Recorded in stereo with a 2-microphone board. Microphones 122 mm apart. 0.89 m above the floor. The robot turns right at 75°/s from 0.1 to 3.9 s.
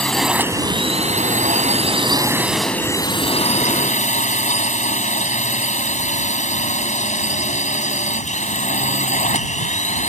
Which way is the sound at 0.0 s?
170° left.